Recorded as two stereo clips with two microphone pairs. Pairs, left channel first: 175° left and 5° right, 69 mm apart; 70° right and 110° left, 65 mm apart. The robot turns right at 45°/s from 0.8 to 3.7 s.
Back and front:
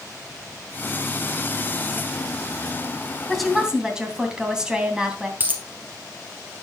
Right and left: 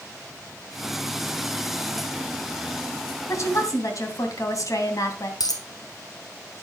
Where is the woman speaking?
100° right, 2.5 m; by 5.3 s 80° right, 2.5 m.